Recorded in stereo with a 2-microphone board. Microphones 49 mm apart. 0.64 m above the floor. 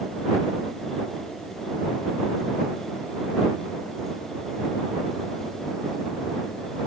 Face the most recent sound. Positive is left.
No sound to turn to.